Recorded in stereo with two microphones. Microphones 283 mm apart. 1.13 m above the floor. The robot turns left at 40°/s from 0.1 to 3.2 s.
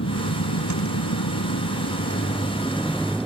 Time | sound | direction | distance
0.0 | a vehicle | 60° left (ahead or behind) | ?